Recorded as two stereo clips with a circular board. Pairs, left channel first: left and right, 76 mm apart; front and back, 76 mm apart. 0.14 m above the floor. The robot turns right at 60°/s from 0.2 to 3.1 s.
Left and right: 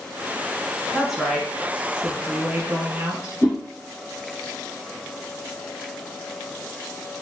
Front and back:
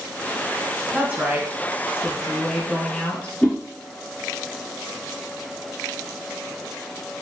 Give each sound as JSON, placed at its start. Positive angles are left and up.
{"t": 0.9, "sound": "a woman speaking", "azimuth_deg": 180, "distance_m": 1.1}
{"t": 3.4, "sound": "a whoosh", "azimuth_deg": 65, "distance_m": 1.5}